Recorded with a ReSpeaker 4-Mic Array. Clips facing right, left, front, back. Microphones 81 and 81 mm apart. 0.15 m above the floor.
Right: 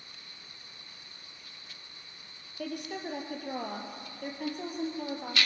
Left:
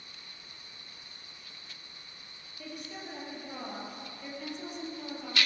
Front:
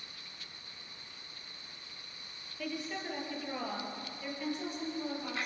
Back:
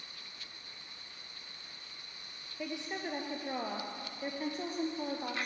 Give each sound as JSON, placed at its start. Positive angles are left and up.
{"t": 2.6, "sound": "a woman speaking", "azimuth_deg": -110, "distance_m": 3.5}